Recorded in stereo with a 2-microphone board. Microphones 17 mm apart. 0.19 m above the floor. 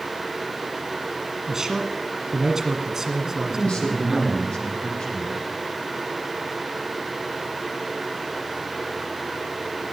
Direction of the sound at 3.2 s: 75° left (ahead or behind).